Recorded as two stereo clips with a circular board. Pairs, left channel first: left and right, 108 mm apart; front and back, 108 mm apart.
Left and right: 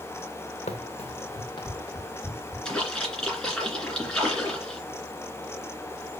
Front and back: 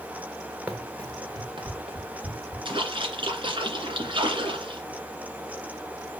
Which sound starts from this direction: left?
Running footsteps, at 0.7 s.